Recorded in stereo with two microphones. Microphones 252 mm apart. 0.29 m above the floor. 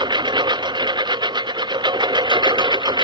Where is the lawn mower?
15° right (ahead or behind).